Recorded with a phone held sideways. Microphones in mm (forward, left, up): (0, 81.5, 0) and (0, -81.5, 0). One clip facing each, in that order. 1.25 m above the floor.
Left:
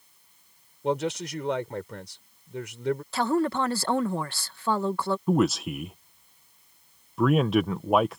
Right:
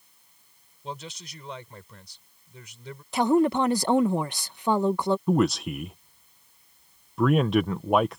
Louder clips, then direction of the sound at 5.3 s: Left 3 dB; centre (ahead or behind).